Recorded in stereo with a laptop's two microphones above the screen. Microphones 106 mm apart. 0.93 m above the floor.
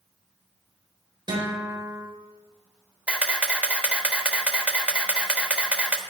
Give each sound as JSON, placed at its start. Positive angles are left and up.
{"t": 1.3, "sound": "a guitar", "side_deg": -45, "distance_m": 4.5}
{"t": 3.1, "sound": "a camera shutter", "side_deg": -10, "distance_m": 1.2}